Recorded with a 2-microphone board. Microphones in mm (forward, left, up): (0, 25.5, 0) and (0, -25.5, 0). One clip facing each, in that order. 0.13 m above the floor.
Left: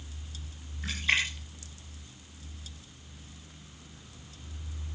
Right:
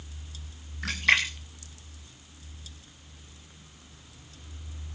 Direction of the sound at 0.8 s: 70° right (ahead or behind).